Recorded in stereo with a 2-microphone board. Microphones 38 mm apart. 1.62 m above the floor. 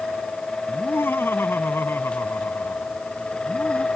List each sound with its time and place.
0.7 s laughter: 80° left